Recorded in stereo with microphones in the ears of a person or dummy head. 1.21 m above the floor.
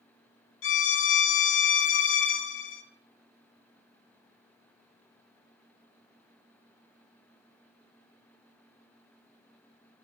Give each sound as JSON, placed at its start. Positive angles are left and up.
{"t": 0.6, "sound": "a violin", "side_deg": 60, "distance_m": 0.6}